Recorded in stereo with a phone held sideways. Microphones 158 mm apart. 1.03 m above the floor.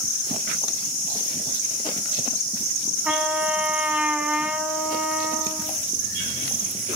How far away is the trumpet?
About 5 m.